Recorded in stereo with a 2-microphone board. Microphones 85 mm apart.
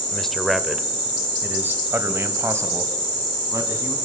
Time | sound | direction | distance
0.1 | a man speaking | 5° left (ahead or behind) | 1.2 m